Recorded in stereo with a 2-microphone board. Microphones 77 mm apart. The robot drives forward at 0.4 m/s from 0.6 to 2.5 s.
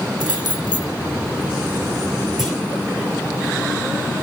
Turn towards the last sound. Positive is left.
turn(degrees=-5)  # may be behind; listen again after turning